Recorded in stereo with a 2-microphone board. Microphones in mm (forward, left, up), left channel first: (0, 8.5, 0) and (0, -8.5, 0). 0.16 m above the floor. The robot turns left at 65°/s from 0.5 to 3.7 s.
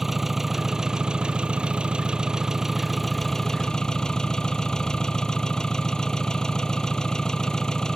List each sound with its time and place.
0.0 s an engine running: 20° right; by 8.0 s 130° left